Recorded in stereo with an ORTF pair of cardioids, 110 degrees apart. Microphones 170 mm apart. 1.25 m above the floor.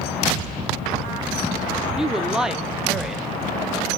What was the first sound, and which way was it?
A woman speaking, 5° right.